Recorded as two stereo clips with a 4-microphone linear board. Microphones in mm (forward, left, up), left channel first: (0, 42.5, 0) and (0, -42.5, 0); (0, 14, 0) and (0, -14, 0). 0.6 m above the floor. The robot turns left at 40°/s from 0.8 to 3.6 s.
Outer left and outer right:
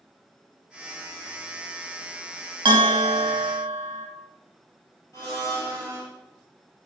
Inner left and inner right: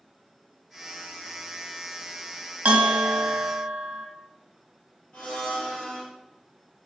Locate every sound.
2.6 s a bell: 75° right, 0.7 m; by 4.1 s 115° right, 0.7 m
5.1 s a blender: 40° left (ahead or behind), 1.6 m